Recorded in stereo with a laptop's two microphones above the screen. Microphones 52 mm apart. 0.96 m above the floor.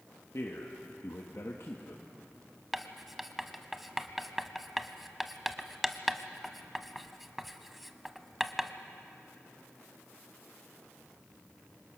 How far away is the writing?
About 1.2 m.